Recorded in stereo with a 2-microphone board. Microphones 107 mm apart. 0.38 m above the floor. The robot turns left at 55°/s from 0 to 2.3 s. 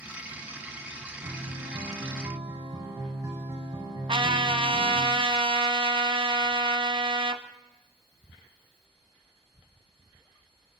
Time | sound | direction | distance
1.2 | a guitar | 80° right | 3.5 m
4.1 | a trumpet | 55° right (ahead or behind) | 0.7 m